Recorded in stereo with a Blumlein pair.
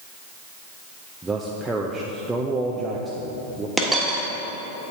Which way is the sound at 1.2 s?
10° right.